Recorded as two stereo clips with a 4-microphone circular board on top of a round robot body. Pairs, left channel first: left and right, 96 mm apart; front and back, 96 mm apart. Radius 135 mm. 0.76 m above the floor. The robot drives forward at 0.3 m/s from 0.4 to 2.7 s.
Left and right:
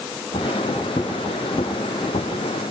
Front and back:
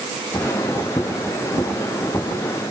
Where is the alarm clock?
I don't hear an alarm clock.